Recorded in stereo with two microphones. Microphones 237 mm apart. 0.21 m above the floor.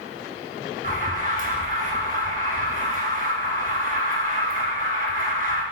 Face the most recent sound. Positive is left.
turn(degrees=-35)  # may be behind; listen again after turning